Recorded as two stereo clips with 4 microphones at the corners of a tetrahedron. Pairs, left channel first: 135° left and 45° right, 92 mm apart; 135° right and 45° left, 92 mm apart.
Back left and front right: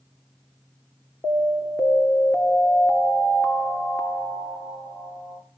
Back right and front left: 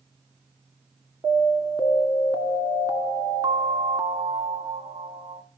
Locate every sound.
1.2 s an alarm: 80° left, 2 m